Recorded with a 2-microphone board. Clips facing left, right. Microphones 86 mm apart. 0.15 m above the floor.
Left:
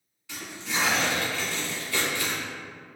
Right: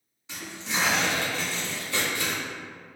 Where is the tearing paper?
20° right (ahead or behind), 1.2 m.